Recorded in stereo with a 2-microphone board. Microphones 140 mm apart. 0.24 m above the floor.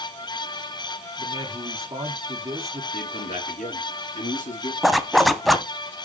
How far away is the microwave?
I don't hear a microwave.